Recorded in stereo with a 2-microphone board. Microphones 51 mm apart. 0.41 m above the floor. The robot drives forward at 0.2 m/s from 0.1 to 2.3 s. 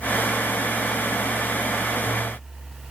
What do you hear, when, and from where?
Only background noise.